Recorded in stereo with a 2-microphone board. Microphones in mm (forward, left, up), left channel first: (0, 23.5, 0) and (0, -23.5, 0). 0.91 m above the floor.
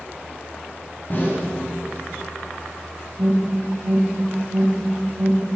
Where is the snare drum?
40° left (ahead or behind), 8 m.